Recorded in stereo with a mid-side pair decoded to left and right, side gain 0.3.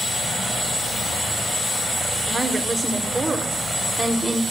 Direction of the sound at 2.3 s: 35° right.